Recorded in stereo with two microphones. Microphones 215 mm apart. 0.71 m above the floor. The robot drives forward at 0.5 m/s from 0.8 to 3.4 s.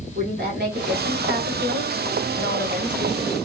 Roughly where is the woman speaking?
Right.